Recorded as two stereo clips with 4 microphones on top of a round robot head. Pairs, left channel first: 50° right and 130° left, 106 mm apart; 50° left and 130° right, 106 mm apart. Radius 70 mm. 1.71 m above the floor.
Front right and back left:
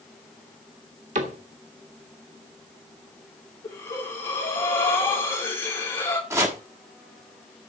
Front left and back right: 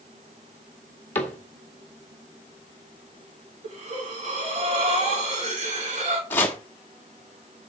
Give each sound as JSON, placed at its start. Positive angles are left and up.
{"t": 1.1, "sound": "a cupboard door", "azimuth_deg": 120, "distance_m": 1.7}
{"t": 3.6, "sound": "breathing", "azimuth_deg": -115, "distance_m": 3.5}
{"t": 6.3, "sound": "chopping", "azimuth_deg": 100, "distance_m": 1.2}